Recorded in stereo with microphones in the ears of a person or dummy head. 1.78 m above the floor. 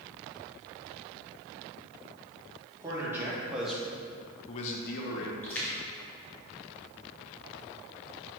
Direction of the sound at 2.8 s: 15° right (ahead or behind).